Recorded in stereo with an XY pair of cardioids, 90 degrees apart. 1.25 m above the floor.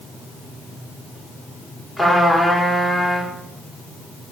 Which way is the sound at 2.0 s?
Straight ahead.